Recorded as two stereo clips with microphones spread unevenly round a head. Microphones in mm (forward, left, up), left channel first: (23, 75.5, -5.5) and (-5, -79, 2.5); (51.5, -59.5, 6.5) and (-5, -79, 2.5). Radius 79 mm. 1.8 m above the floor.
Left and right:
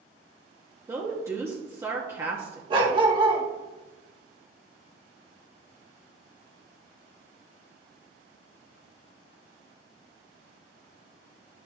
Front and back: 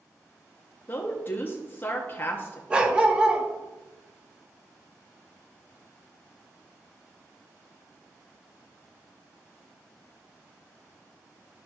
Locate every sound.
0.9 s a woman speaking: 30° right, 1.1 m
2.7 s a dog barking: 100° right, 1.4 m